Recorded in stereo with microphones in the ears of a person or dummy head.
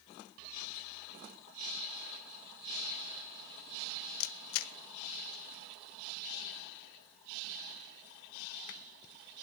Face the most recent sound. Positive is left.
turn(degrees=85)